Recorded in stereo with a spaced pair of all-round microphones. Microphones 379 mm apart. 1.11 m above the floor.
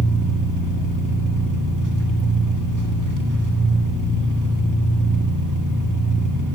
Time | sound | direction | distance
0.0 | an engine running | 50° right (ahead or behind) | 1.5 m